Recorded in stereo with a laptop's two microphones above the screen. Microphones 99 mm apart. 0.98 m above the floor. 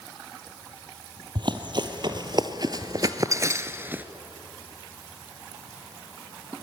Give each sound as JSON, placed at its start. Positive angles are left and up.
{"t": 1.4, "sound": "running footsteps", "side_deg": -50, "distance_m": 1.8}